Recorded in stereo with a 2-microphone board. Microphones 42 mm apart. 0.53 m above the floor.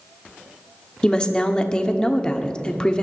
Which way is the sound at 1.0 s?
20° left (ahead or behind).